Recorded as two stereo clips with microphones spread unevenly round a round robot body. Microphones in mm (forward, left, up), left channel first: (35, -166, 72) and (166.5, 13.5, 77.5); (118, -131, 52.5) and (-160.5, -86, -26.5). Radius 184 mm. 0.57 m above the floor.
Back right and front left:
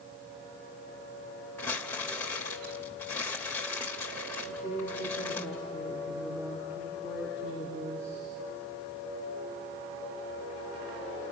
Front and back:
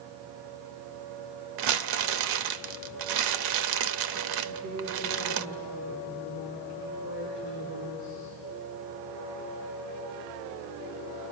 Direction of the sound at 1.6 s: 150° left.